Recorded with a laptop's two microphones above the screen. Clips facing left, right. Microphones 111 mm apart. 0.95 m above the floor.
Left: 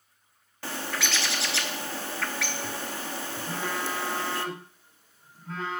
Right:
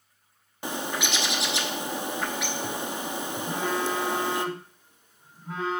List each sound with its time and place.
0.6 s a bird: 20° right (ahead or behind), 0.7 m
3.5 s a phone buzzing: 15° right (ahead or behind), 3.5 m